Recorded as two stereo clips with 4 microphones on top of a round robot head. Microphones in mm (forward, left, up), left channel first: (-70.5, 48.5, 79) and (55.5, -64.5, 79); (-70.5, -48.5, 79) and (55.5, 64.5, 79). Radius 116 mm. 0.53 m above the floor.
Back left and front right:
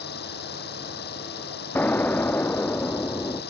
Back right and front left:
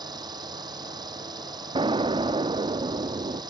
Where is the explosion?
70° left.